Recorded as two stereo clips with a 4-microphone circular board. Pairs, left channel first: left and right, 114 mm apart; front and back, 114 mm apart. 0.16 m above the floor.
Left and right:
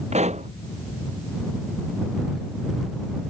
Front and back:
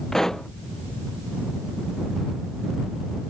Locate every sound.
0.1 s a pop: 85° right